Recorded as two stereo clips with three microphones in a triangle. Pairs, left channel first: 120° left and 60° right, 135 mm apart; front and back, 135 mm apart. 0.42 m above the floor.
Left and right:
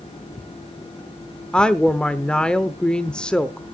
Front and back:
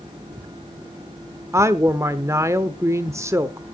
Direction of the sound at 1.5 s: 165° right.